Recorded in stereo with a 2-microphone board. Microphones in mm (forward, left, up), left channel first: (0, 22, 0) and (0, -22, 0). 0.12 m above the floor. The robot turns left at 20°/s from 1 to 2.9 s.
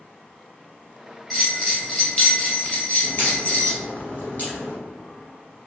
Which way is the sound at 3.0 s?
50° left (ahead or behind).